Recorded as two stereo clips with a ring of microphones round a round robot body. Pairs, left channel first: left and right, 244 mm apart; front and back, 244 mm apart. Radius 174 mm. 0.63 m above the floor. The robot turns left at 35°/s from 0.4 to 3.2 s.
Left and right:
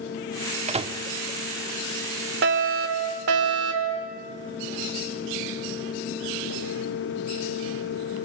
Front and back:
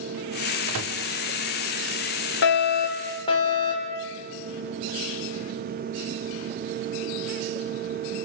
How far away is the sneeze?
No sneeze in this recording.